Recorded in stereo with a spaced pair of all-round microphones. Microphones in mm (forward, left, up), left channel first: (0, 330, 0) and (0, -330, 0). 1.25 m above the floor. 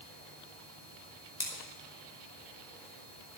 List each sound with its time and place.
1.4 s scissors: 70° left (ahead or behind), 4 m